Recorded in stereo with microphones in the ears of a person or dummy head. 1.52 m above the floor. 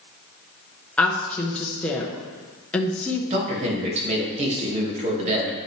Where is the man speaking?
35° right (ahead or behind), 2 m.